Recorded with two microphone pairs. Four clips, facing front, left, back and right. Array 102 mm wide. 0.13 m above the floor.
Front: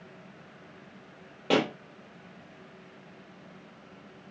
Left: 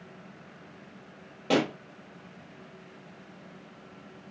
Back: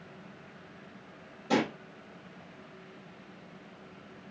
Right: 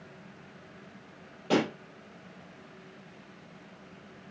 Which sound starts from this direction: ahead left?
A pop, at 1.5 s.